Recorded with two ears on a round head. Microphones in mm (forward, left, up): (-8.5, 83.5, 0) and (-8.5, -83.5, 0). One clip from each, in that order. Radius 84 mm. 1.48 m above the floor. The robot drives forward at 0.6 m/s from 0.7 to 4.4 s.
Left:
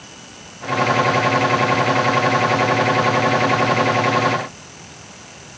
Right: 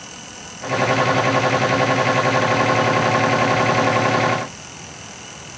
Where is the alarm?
No alarm in this recording.